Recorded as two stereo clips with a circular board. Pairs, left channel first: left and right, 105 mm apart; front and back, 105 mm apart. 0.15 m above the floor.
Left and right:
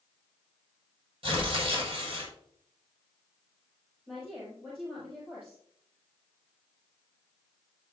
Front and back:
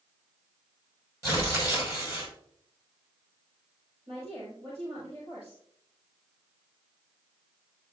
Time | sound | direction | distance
1.2 | tearing paper | 120° right | 4 m
4.1 | a woman speaking | 160° right | 4.5 m